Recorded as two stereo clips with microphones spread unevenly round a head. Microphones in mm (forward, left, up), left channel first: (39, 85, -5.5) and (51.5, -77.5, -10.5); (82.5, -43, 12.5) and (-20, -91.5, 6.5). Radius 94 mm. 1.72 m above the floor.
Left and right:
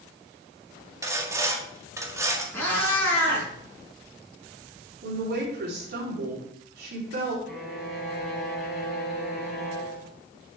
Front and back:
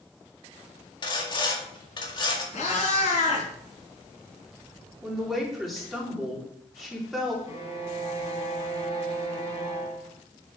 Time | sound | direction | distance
1.0 | sawing | 15° right | 2.0 m
2.5 | a cat meowing | 20° left | 4 m
5.0 | a woman speaking | 65° right | 4 m
7.5 | a violin | 5° left | 4.5 m